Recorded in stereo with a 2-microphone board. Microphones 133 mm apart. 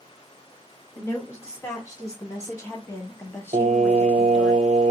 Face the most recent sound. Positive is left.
turn(degrees=-60)  # may be behind; listen again after turning